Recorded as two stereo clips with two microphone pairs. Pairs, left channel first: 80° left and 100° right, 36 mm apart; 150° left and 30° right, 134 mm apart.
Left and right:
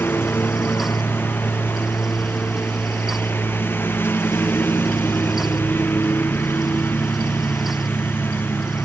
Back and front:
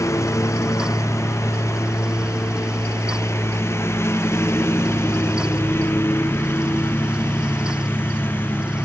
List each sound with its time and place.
0.0 s a lawn mower: 80° left; by 8.8 s 75° left